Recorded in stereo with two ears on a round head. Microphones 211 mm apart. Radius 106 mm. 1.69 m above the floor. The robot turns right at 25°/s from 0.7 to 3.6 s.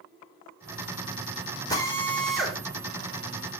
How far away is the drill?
About 4 m.